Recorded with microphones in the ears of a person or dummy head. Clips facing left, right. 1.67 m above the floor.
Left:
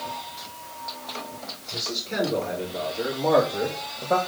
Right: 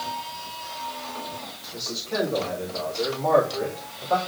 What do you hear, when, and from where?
1.7 s a man speaking: 25° left (ahead or behind), 3.5 m; by 4.2 s 30° left (ahead or behind), 1.9 m